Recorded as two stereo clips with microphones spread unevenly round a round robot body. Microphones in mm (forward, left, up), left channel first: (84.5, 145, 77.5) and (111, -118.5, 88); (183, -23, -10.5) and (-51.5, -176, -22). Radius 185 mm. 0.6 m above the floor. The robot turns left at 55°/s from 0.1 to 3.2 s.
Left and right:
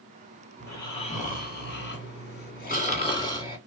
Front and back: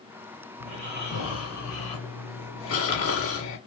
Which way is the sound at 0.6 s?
175° left.